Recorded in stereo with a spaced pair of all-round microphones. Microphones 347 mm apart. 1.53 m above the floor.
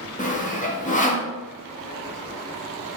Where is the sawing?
20° left (ahead or behind), 0.5 m.